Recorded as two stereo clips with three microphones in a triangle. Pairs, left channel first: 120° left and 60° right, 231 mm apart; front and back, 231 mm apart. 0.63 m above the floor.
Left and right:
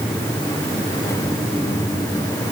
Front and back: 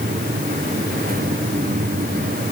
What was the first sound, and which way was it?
Only background noise.